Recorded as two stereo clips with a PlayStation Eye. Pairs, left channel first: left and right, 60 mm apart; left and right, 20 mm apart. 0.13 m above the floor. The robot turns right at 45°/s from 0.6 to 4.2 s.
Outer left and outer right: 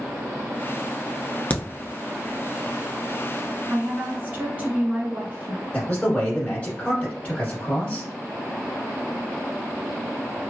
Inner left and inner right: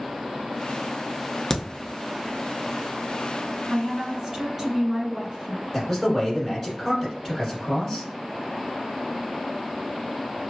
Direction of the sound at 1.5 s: 25° left (ahead or behind).